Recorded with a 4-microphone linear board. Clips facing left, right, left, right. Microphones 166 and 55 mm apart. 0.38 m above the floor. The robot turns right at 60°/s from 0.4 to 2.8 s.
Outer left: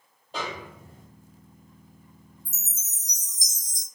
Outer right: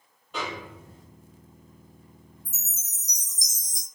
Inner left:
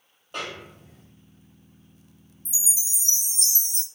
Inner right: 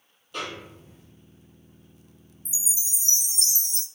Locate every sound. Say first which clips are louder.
0.3 s a snare drum: even, even; 45° left, 1.6 m; by 1.1 s 90° left, 1.6 m
2.5 s a chime: even, inner left 2 dB; 45° left (ahead or behind), 1.0 m; by 3.9 s 25° left (ahead or behind), 1.0 m